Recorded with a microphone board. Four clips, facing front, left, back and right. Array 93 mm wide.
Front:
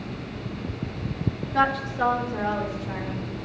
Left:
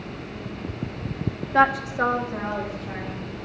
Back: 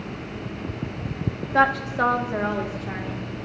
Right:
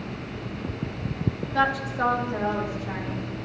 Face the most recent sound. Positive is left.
turn(degrees=-160)